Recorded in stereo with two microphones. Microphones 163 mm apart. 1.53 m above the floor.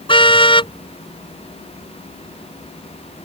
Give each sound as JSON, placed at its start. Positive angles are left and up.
{"t": 0.1, "sound": "a car horn", "side_deg": 30}